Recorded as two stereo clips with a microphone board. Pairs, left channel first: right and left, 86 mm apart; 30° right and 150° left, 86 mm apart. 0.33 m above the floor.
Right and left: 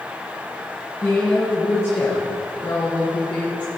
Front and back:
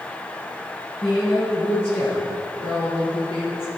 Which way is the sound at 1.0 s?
35° right.